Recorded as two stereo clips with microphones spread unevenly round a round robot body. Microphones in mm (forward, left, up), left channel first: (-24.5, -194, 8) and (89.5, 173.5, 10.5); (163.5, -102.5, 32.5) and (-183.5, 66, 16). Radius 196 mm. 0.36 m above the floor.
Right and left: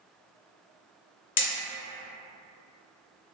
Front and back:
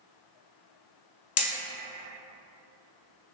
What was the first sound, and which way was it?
Hammering, 65° right.